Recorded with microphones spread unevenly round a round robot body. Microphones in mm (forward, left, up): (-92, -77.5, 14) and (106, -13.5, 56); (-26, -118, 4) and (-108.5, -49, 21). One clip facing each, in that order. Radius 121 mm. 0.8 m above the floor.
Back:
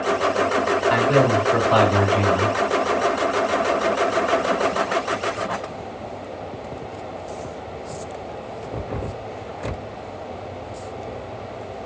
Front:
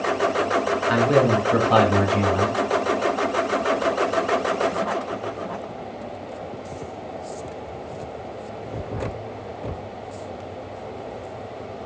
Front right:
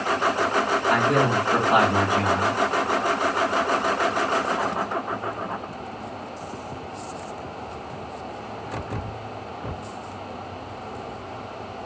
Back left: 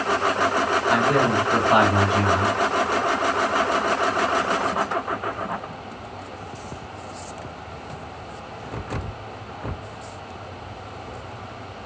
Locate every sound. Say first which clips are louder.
0.9 s a man speaking: front 1 dB, back left 1 dB; 60° left, 1.3 m